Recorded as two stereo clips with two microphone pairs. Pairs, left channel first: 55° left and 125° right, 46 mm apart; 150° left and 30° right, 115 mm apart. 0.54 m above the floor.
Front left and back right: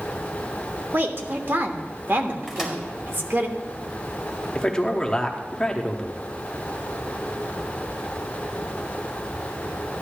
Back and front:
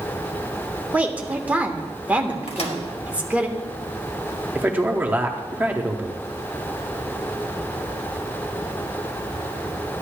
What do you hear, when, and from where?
0.9 s a woman speaking: 105° right, 1.2 m
2.5 s a microwave: 155° left, 2 m
4.5 s a man speaking: 15° left, 0.9 m